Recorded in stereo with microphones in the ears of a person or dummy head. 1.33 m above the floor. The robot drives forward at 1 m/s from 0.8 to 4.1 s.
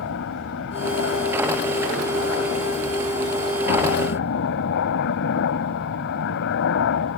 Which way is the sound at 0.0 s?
65° left (ahead or behind).